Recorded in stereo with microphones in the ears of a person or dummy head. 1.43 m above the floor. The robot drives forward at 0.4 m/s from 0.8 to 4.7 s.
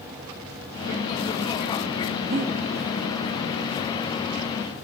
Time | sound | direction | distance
2.3 | breathing | 40° right (ahead or behind) | 1.3 m